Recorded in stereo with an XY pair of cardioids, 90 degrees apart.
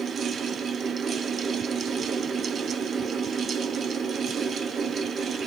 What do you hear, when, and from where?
0.0 s a fan: 55° right, 0.9 m